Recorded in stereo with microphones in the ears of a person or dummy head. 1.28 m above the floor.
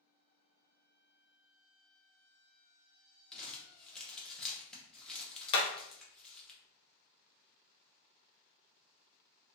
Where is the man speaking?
I don't hear a man speaking.